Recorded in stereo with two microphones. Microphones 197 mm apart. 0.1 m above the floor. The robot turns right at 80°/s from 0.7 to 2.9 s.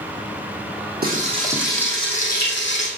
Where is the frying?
55° right, 2.5 m; by 2.9 s 95° left, 2.5 m.